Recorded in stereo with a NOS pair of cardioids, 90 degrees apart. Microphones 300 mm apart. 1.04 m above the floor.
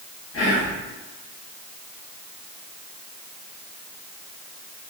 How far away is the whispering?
About 1.3 m.